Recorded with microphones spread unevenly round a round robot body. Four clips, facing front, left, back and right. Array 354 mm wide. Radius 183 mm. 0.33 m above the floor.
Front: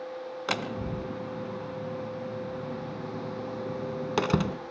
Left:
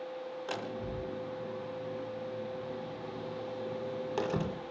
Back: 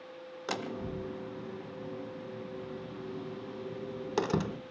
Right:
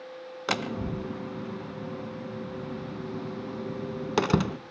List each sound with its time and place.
0.5 s a door slam: 65° right, 2.5 m